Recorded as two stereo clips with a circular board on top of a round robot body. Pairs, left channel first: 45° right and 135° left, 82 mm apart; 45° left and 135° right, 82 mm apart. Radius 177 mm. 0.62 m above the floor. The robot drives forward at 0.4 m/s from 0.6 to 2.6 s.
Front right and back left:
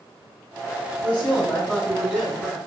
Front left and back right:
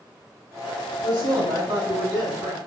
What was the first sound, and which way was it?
A woman speaking, 140° right.